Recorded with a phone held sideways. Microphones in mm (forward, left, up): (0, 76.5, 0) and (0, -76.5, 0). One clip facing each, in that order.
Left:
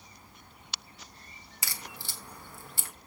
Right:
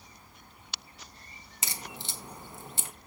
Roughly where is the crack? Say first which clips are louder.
Right 3 dB; right.